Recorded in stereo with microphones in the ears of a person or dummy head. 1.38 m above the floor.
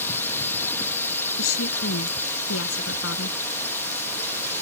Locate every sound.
0.0 s a drone: 15° left (ahead or behind)
1.4 s a woman speaking: 90° left